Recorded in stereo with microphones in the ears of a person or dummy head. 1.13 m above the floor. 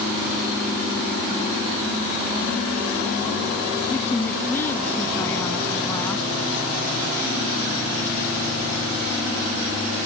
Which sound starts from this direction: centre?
A woman speaking, at 3.9 s.